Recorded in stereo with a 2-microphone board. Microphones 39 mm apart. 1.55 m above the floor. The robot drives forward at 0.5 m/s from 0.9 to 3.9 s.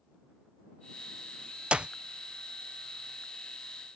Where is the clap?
30° right (ahead or behind); by 1.9 s 25° right (ahead or behind).